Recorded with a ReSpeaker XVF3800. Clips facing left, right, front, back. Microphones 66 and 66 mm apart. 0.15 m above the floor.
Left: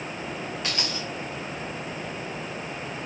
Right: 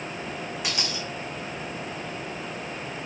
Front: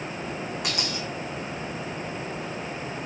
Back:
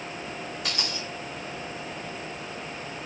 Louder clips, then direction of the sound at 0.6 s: Even, front 1 dB; 15° right.